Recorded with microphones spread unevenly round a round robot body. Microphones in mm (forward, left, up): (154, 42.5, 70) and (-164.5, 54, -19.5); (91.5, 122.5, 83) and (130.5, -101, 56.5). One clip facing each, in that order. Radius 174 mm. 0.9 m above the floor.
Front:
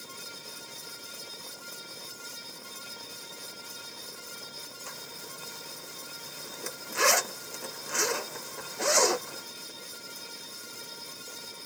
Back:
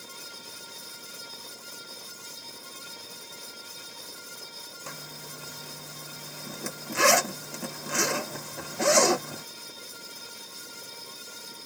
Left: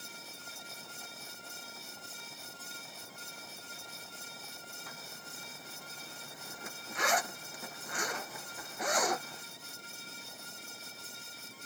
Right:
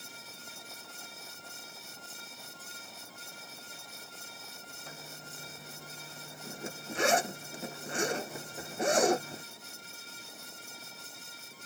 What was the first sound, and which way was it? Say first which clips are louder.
A zipper: back 4 dB, right 2 dB; 155° right.